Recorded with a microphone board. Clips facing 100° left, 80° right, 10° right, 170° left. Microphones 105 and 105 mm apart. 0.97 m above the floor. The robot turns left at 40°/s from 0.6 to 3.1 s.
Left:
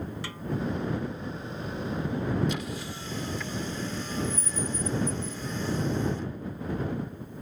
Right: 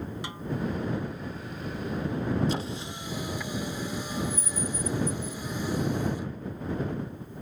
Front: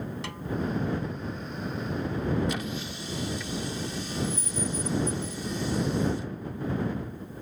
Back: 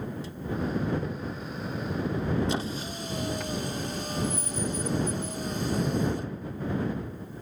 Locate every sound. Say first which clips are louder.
0.2 s a snare drum: right 1 dB, front 2 dB; 10° right
2.5 s a squeak: right 2 dB, back 2 dB; 130° right; by 6.3 s 155° right